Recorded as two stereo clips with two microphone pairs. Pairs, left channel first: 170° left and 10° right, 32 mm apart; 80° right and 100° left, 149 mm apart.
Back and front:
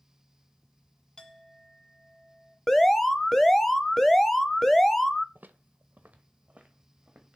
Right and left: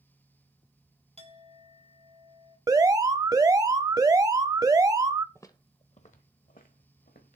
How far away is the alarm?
About 0.7 m.